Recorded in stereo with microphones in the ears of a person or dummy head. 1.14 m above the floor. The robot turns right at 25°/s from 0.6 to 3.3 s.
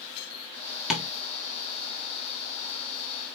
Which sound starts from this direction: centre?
Tapping, at 0.9 s.